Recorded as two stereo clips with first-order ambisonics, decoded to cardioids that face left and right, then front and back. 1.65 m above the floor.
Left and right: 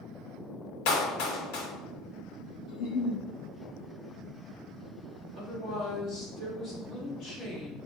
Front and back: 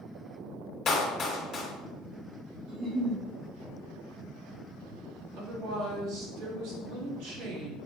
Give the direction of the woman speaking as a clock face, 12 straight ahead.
7 o'clock.